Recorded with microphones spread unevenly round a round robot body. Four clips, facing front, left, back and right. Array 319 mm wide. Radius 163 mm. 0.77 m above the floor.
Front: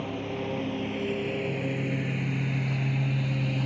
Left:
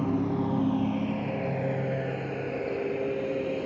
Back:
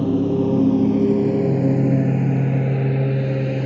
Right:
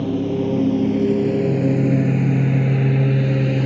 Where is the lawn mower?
170° right; by 3.7 s 105° right.